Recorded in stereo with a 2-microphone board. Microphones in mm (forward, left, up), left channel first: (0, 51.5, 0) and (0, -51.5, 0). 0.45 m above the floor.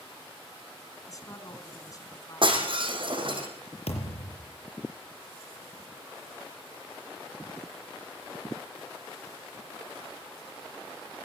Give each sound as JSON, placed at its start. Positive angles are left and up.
{"t": 1.1, "sound": "a woman speaking", "side_deg": 35, "distance_m": 4.0}
{"t": 2.4, "sound": "breaking glass", "side_deg": -55, "distance_m": 5.5}
{"t": 3.9, "sound": "a thud", "side_deg": 85, "distance_m": 5.5}